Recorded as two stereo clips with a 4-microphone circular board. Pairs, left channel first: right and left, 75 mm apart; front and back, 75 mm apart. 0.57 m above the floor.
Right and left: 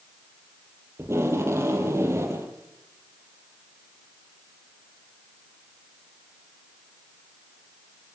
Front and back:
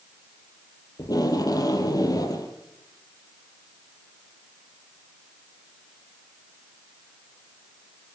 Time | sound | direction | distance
1.0 | tape being pulled | 35° left | 4.5 m